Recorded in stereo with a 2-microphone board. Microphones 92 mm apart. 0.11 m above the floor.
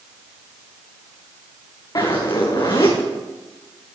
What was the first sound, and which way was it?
A zipper, 40° left (ahead or behind).